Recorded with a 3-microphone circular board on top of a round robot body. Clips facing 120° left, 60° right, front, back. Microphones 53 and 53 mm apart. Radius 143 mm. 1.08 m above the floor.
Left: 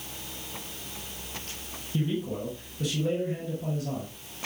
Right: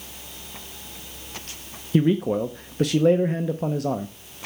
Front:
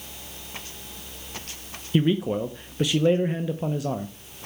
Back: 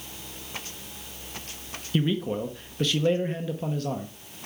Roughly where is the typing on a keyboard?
I don't hear typing on a keyboard.